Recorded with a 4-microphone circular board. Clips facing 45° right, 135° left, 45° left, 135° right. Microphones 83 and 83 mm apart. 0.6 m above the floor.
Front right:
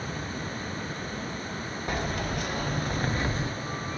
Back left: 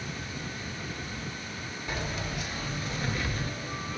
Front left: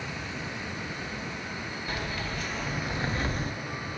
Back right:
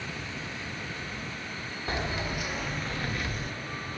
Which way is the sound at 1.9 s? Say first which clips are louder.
Front right 4 dB, back right 4 dB; 80° right.